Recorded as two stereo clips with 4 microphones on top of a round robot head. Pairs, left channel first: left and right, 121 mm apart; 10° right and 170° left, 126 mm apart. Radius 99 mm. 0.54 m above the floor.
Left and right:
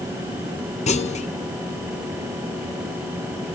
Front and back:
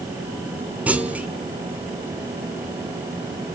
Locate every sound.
0.9 s a clunk: 95° left, 2 m